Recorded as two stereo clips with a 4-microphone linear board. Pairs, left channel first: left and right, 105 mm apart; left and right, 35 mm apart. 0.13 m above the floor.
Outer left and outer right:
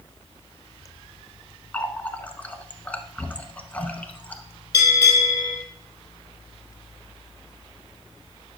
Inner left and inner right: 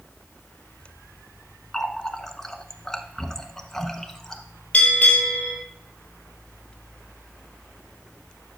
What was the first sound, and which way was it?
A running tap, 15° left (ahead or behind).